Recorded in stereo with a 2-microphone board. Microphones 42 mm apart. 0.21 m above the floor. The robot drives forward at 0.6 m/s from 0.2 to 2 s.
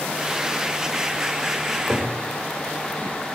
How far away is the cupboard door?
About 8.5 m.